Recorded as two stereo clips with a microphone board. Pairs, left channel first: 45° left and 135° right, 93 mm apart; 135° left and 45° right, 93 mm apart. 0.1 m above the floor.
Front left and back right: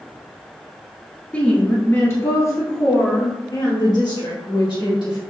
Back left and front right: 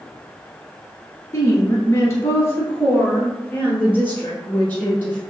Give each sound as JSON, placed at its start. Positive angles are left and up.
{"t": 1.3, "sound": "a woman speaking", "azimuth_deg": 110, "distance_m": 1.4}